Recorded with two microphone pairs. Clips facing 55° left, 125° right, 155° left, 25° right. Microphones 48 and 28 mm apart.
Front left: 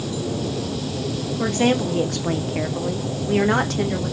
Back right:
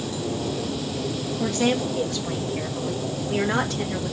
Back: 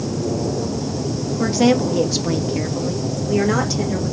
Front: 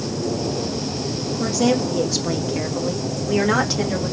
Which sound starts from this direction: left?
A woman speaking, at 1.4 s.